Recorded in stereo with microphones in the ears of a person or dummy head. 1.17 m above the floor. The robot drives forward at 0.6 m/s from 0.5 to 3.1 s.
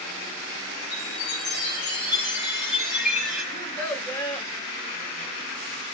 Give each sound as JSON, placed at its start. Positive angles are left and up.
{"t": 0.9, "sound": "a chime", "side_deg": 5, "distance_m": 4.5}
{"t": 3.5, "sound": "a child speaking", "side_deg": 25, "distance_m": 2.0}